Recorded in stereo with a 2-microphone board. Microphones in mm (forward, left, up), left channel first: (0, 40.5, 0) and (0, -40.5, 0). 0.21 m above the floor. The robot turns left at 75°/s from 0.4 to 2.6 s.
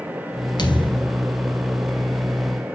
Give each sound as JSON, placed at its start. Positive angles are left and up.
{"t": 0.6, "sound": "a thud", "azimuth_deg": 100, "distance_m": 1.9}